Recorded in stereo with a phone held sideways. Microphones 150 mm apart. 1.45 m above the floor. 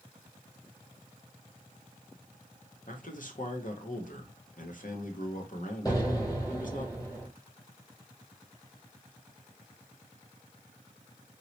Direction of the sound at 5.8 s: 25° left (ahead or behind).